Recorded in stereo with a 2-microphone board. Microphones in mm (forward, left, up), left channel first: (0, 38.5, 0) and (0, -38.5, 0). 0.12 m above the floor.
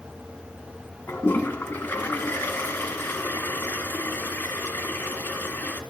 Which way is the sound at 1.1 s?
25° left (ahead or behind).